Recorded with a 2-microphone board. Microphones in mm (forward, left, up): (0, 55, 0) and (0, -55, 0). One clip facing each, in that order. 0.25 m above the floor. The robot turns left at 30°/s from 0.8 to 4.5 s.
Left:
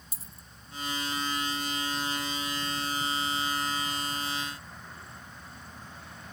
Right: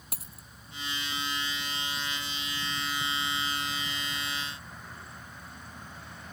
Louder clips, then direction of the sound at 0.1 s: Right 3 dB; 65° right (ahead or behind).